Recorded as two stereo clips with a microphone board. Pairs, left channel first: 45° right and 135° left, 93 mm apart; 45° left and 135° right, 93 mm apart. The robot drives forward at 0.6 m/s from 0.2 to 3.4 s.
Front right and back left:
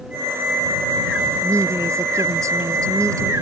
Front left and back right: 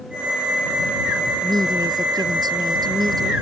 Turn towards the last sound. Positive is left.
turn(degrees=-170)